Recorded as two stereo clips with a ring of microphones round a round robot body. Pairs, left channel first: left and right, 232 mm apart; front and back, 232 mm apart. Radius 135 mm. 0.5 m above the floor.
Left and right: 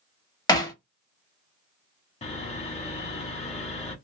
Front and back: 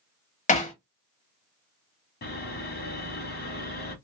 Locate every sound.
0.5 s hammering: 30° left, 1.2 m
2.2 s sawing: 35° left, 1.1 m